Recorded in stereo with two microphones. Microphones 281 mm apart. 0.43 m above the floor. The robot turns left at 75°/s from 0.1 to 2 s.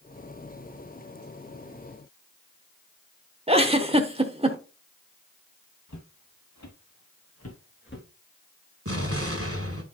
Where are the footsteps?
80° left, 3 m; by 8.1 s 40° left (ahead or behind), 2.5 m.